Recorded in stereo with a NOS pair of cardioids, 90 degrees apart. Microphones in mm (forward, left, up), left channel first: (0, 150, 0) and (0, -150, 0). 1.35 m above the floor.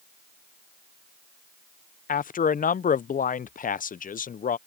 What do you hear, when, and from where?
2.1 s a man speaking: 30° left